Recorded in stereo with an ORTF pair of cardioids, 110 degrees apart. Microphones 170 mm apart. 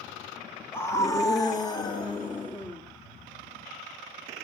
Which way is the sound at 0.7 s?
15° left.